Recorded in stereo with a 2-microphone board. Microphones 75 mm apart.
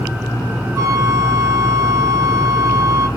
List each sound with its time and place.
0.8 s a flute: 40° right (ahead or behind), 0.8 m